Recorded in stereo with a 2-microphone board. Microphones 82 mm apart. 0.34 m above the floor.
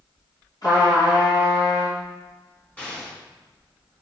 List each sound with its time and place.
0.6 s a trumpet: 50° left (ahead or behind), 3 m
2.8 s an explosion: 20° left (ahead or behind), 2.5 m